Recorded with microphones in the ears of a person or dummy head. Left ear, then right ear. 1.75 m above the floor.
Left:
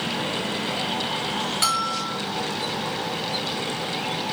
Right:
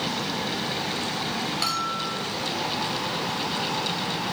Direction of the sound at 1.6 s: 20° left (ahead or behind).